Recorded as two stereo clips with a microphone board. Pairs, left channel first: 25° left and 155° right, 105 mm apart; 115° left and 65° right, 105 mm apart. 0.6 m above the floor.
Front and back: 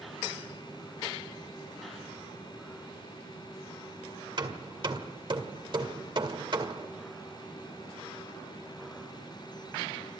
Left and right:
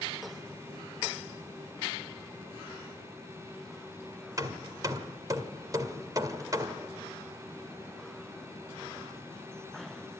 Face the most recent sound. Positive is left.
turn(degrees=-120)